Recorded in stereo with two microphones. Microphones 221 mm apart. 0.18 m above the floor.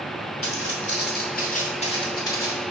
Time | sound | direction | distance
0.4 | footsteps | 70° left (ahead or behind) | 1.5 m